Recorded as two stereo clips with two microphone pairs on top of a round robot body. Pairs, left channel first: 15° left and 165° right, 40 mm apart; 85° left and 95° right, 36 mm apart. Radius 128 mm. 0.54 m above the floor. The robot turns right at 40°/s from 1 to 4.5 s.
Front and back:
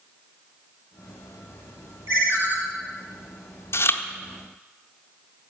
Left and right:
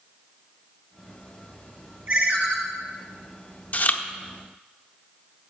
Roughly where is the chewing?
Ahead left.